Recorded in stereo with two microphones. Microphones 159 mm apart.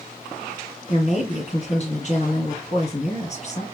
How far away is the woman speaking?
About 2 m.